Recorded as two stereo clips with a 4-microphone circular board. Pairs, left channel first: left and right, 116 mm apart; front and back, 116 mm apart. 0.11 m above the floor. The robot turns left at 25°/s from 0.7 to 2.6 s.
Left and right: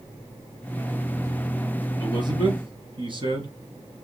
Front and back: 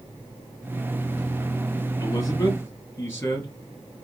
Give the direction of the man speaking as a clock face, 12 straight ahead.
2 o'clock.